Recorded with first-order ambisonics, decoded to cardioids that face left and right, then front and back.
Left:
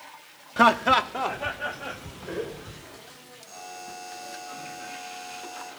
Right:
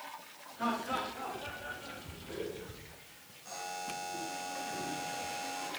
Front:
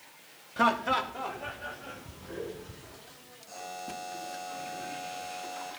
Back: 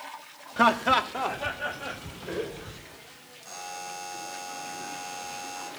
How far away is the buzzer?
About 5 m.